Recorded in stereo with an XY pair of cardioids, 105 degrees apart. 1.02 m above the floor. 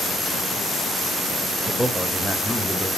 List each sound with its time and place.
1.7 s a man speaking: 10° right, 1.4 m; by 2.9 s 5° right, 2 m